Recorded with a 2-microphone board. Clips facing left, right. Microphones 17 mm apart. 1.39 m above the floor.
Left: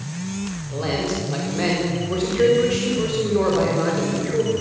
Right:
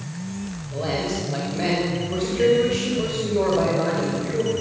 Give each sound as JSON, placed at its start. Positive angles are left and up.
{"t": 0.7, "sound": "a man speaking", "side_deg": 45, "distance_m": 5.5}